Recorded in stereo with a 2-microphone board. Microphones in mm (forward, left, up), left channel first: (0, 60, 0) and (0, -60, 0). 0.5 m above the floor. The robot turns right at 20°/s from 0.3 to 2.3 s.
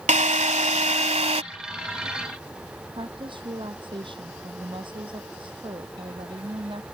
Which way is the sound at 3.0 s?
45° right (ahead or behind).